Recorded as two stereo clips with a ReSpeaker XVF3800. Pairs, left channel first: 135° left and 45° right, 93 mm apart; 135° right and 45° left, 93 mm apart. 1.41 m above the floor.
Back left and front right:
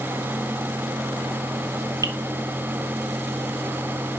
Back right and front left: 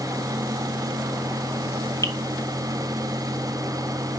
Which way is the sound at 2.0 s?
90° right.